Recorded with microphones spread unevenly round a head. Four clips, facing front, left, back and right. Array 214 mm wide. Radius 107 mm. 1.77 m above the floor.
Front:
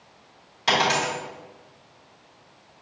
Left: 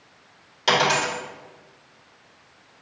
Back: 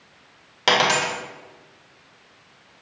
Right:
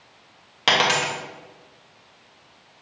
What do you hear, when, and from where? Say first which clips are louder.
0.7 s a dropped coin: left 1 dB, back 2 dB; 135° right, 1.4 m